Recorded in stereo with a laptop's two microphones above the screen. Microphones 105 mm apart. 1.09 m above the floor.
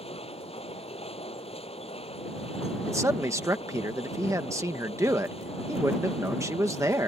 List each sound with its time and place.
0.0 s a machine running: 70° left (ahead or behind)
2.9 s a man speaking: 30° right (ahead or behind)